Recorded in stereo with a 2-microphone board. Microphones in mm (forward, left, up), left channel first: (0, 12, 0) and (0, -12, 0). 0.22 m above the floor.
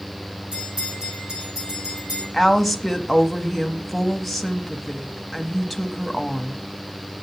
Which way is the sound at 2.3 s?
5° right (ahead or behind).